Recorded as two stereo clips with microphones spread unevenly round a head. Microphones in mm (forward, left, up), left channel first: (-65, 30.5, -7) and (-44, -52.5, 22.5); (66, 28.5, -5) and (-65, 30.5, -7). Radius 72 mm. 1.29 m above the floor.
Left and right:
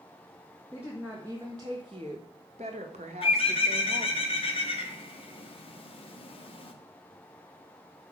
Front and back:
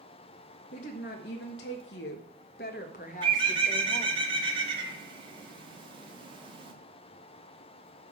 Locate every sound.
0.7 s a woman speaking: 10° left, 1.4 m; by 4.2 s 60° right, 1.7 m
3.2 s a bird: 125° left, 1.9 m